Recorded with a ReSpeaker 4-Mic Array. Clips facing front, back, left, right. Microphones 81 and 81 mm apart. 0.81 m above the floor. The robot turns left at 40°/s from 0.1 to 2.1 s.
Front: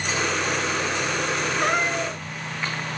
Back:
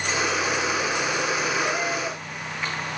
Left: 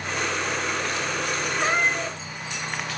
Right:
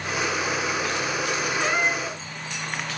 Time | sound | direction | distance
1.6 | a cat meowing | 30° left | 1.4 m